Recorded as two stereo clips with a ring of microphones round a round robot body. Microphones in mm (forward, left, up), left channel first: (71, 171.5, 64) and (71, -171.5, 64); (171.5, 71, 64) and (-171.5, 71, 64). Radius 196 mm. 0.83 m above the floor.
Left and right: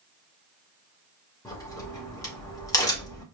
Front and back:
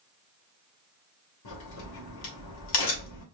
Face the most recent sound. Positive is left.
turn(degrees=10)